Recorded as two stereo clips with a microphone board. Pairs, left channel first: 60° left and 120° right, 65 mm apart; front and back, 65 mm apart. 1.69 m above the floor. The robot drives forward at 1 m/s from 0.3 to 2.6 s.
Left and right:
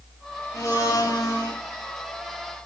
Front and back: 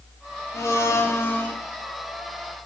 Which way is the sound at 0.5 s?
35° left.